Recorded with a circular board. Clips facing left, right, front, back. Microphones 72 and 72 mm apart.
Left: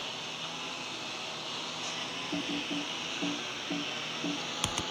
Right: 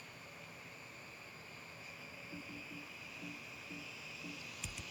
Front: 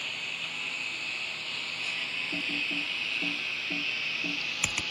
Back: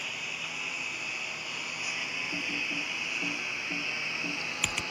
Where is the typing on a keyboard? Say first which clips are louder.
Left 17 dB, front 2 dB; 85° left.